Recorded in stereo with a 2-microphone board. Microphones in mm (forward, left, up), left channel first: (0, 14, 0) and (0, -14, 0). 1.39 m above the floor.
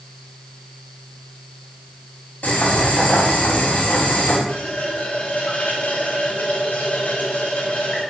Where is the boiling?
80° left, 6 m.